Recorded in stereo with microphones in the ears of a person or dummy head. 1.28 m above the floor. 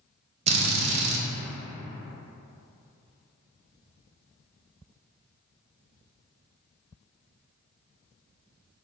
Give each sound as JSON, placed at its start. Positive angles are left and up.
{"t": 0.5, "sound": "a drill", "side_deg": -35, "distance_m": 0.5}